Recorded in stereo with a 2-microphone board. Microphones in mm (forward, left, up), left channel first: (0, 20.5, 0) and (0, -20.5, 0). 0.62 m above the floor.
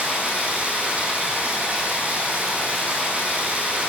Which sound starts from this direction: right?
Running water, at 0.0 s.